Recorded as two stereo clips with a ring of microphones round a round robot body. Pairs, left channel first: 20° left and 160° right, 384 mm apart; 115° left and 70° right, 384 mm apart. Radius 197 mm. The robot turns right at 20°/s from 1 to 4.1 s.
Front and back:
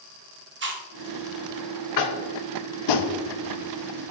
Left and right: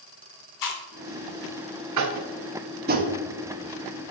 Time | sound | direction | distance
0.6 | chewing | 145° left | 1.7 m
2.0 | tapping | 20° right | 1.1 m